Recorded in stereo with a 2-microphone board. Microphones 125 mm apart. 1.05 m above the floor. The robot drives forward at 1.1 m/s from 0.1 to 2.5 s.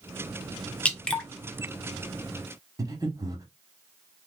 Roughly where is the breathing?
Right.